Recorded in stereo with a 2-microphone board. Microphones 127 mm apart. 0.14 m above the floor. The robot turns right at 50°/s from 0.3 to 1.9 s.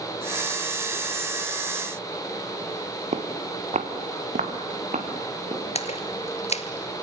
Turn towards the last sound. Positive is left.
turn(degrees=60)  # may be behind; listen again after turning